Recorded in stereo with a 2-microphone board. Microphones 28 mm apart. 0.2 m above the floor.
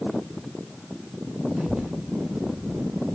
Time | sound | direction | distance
1.6 | a child speaking | 80° right | 5.5 m